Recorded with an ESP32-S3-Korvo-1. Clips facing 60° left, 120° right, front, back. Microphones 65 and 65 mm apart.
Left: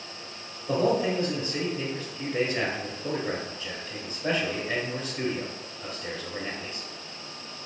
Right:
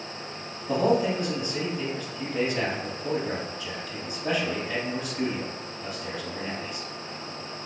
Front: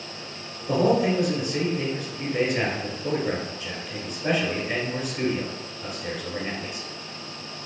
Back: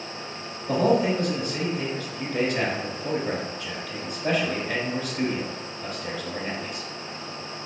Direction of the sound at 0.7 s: 65° left.